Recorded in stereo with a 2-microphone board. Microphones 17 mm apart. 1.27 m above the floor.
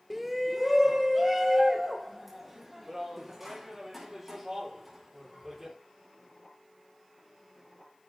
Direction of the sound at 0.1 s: 5° right (ahead or behind).